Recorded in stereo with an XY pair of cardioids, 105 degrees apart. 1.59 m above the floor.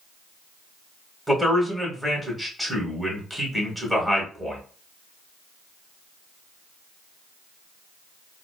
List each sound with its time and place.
1.3 s a man speaking: 10° right, 1.3 m